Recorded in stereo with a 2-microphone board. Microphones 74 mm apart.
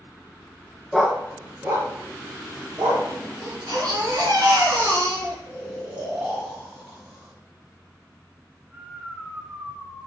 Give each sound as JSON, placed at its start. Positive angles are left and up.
{"t": 0.9, "sound": "a dog barking", "side_deg": 0, "distance_m": 0.6}
{"t": 3.4, "sound": "a baby crying", "side_deg": -60, "distance_m": 1.7}
{"t": 5.5, "sound": "snoring", "side_deg": -15, "distance_m": 2.5}